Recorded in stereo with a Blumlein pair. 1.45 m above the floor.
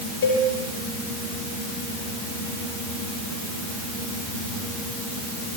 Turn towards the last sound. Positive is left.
turn(degrees=60)